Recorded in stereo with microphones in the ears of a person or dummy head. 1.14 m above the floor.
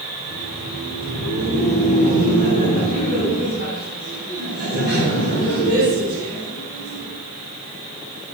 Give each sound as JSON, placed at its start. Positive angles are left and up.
{"t": 0.1, "sound": "laughter", "side_deg": -25, "distance_m": 4.0}